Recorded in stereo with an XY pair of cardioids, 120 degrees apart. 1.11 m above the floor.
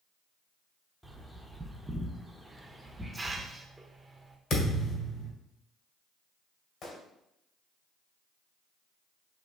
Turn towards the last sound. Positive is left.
turn(degrees=55)